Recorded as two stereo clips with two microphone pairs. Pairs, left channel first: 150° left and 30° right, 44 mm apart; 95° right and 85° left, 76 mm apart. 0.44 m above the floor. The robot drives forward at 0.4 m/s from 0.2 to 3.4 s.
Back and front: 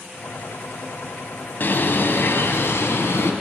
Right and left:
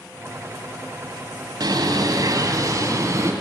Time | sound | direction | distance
1.6 | a bird | 110° left | 1.2 m